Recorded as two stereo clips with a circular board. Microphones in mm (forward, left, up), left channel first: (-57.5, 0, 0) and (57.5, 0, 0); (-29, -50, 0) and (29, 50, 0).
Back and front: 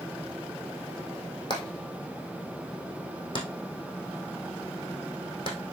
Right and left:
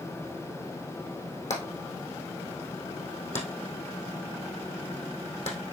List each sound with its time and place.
1.5 s hammering: 135° right, 3 m